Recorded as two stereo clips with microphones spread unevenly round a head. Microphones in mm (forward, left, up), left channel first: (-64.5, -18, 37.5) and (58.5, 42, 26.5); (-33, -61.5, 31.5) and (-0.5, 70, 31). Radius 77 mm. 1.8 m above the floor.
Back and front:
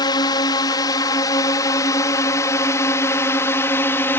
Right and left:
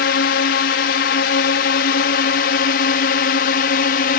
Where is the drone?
90° right; by 4.2 s 80° right.